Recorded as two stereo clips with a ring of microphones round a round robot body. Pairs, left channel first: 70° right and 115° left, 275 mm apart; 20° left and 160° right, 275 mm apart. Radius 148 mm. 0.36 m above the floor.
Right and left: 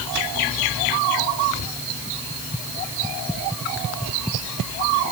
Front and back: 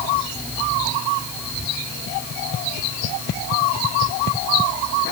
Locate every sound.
Only background noise.